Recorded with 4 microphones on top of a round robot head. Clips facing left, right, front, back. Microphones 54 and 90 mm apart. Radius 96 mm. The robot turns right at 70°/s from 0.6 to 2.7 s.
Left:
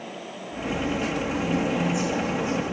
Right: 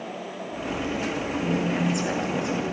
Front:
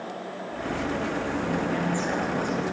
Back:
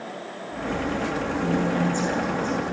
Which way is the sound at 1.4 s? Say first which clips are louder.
Right 1 dB, back 6 dB; 150° right.